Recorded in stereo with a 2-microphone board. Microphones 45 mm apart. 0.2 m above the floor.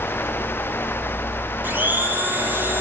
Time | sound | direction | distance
1.6 | a blender | 40° right (ahead or behind) | 5 m